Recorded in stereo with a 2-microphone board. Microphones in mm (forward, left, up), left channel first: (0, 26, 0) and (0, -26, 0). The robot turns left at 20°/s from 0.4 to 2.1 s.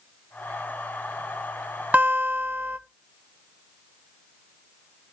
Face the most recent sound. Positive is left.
turn(degrees=-35)  # may be behind; listen again after turning